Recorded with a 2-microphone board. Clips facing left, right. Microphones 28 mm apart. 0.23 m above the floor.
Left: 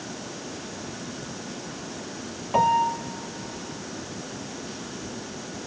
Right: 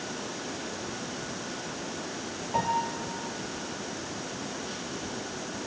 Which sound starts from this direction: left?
A piano, at 2.5 s.